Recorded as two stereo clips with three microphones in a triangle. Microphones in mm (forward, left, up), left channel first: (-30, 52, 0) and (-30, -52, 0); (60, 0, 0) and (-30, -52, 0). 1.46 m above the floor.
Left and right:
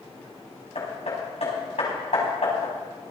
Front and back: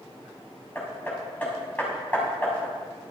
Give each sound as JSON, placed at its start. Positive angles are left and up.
{"t": 0.8, "sound": "hammering", "azimuth_deg": 105, "distance_m": 6.0}